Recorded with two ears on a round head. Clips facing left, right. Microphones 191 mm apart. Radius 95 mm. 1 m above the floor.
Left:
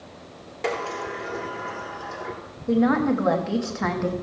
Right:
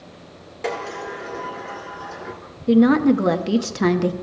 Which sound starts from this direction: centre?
A sliding door, at 0.6 s.